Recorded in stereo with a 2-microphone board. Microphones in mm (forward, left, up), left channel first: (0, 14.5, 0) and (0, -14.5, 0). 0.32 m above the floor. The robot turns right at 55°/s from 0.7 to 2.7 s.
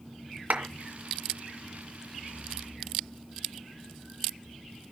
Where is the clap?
70° right (ahead or behind), 2.5 m.